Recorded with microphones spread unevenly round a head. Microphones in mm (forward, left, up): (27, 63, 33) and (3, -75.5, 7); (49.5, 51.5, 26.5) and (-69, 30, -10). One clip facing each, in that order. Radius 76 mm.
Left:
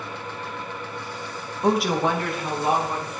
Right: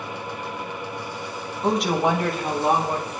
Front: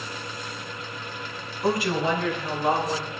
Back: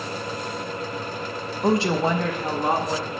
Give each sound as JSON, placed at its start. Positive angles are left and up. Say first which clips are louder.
{"t": 1.6, "sound": "a woman speaking", "louder": "even, back 3 dB", "azimuth_deg": 160, "distance_m": 0.9}